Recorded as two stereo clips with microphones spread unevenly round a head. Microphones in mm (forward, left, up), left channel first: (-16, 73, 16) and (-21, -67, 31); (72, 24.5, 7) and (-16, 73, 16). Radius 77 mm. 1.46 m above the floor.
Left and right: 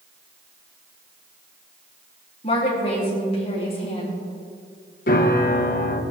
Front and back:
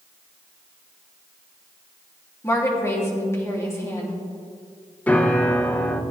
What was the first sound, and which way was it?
A woman speaking, 35° left.